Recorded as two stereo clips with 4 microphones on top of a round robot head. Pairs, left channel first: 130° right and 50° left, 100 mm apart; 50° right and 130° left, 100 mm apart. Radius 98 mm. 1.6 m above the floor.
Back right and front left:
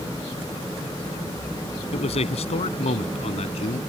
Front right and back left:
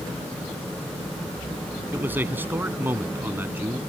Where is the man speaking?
155° right.